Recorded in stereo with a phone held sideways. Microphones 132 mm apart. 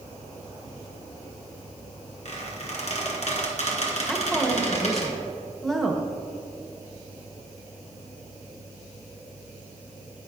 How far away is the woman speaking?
About 1.1 m.